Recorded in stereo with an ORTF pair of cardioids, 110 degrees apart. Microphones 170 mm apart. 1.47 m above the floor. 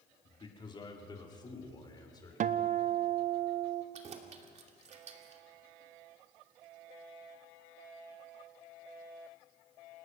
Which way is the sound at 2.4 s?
50° right.